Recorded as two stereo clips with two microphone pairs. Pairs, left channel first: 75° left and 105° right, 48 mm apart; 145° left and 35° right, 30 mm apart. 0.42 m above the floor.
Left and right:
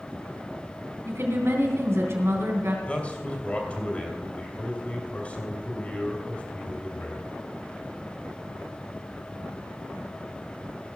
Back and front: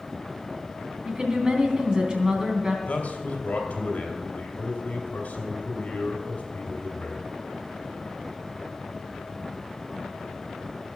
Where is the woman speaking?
95° right, 3 m.